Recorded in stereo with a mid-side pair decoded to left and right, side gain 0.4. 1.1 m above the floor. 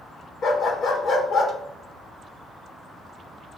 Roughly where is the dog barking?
Ahead left.